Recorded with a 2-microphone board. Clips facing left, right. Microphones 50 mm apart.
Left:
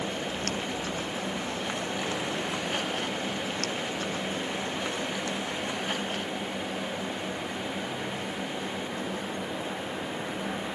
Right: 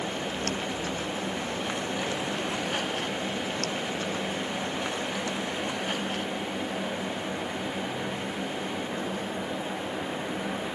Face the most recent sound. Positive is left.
No sound to turn to.